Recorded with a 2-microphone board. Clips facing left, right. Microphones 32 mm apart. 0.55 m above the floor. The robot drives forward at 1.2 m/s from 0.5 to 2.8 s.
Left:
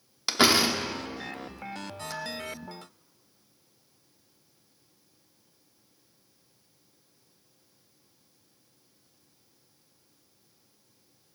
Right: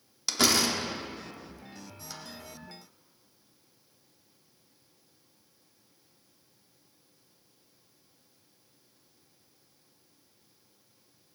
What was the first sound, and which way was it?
A door slam, 30° left (ahead or behind).